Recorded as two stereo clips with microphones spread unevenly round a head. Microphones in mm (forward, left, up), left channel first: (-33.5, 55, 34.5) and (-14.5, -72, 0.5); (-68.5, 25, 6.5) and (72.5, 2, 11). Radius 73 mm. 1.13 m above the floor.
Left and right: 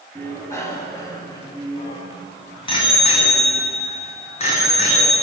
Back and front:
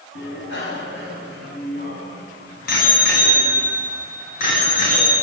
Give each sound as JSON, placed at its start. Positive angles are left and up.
{"t": 0.1, "sound": "a bicycle bell", "azimuth_deg": 170, "distance_m": 6.0}